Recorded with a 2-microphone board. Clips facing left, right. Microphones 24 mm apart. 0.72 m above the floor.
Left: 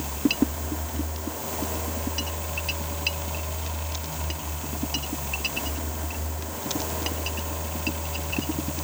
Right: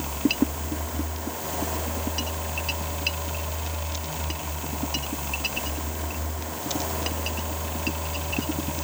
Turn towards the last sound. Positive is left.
No sound to turn to.